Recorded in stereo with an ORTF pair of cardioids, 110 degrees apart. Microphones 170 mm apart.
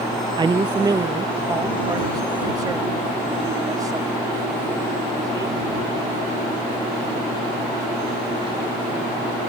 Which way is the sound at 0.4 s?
25° right.